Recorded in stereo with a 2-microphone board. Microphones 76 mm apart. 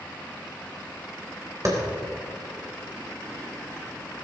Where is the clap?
45° right (ahead or behind), 3.5 m.